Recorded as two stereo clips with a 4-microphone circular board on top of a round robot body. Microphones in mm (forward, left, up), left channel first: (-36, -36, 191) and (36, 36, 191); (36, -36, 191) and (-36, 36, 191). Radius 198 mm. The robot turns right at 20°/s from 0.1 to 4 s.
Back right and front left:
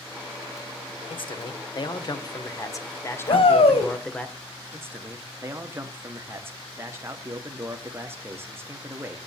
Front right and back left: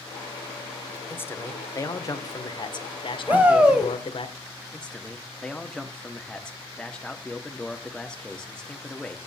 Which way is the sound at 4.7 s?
25° left.